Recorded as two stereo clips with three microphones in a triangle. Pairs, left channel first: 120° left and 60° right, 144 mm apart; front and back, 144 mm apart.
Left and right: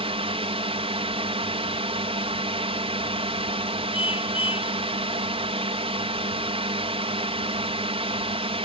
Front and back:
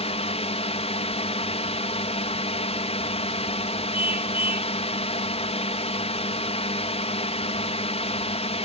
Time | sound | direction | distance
0.0 | a drone | 25° right | ?
3.9 | a car horn | 170° left | ?